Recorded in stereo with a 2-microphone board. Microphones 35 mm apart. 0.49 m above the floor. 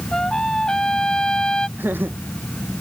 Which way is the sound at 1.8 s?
65° right (ahead or behind).